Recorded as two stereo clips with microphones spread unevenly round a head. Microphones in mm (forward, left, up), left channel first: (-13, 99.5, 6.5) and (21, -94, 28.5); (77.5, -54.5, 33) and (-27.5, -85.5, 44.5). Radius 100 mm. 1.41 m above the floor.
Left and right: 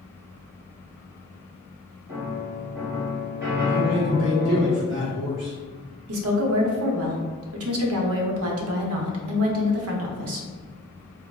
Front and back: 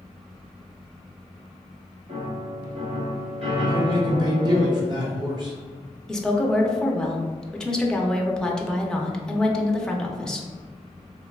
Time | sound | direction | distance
2.1 | a piano | 155° right | 1.9 m
3.7 | a man speaking | 115° right | 1.1 m
6.1 | a woman speaking | 65° right | 0.6 m